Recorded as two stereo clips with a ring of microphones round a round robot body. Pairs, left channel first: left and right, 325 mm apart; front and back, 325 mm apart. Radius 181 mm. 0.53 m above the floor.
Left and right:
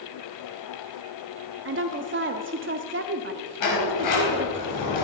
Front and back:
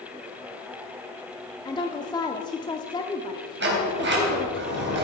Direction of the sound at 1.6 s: 70° right.